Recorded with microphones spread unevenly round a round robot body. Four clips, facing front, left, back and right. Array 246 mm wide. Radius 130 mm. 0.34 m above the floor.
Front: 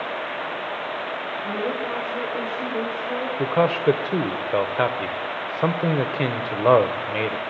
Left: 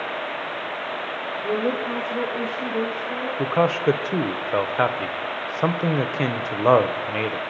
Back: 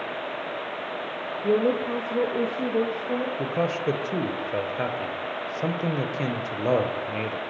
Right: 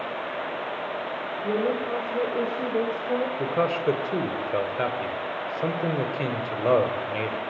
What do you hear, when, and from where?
1.4 s a woman speaking: 175° left, 1.9 m; by 3.3 s 115° right, 1.9 m
3.4 s a man speaking: 20° left, 1.1 m